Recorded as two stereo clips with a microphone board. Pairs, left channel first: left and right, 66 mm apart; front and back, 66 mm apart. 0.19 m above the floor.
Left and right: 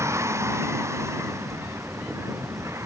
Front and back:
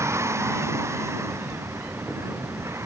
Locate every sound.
0.0 s a vehicle: 135° right